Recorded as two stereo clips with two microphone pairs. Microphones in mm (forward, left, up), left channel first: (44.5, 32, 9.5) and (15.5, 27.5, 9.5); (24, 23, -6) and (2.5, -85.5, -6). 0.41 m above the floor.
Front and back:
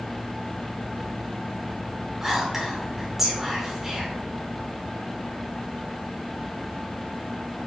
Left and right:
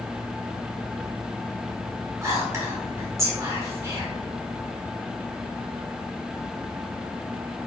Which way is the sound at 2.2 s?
105° right.